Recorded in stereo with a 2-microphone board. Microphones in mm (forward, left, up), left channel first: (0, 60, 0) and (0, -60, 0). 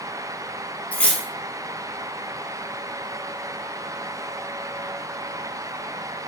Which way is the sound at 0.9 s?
10° left (ahead or behind).